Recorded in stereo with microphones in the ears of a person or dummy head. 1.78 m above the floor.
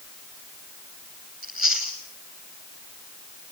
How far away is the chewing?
About 9.5 m.